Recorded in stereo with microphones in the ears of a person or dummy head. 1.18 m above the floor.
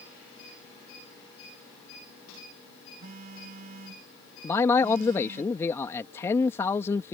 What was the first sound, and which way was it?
A phone buzzing, 55° right (ahead or behind).